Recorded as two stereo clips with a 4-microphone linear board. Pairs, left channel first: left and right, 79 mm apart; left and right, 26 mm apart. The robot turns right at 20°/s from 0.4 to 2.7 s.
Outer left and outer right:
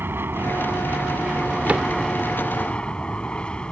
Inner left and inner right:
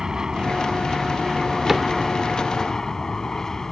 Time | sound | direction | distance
0.0 | an aircraft | 30° right | ?
1.7 | a cupboard door | 20° right (ahead or behind) | ?